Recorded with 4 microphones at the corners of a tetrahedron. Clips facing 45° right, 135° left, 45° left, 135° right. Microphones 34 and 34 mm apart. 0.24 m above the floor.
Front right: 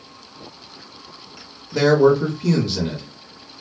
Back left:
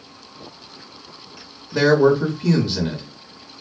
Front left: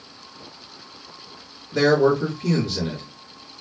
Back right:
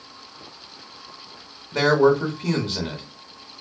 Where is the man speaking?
140° right, 1.3 m.